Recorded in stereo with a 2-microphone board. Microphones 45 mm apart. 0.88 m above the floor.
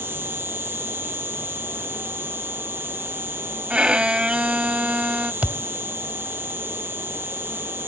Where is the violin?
25° right (ahead or behind).